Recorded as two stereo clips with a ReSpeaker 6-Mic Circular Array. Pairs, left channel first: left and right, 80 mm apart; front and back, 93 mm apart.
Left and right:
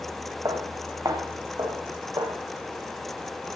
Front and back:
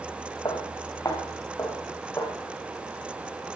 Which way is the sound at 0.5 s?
45° right.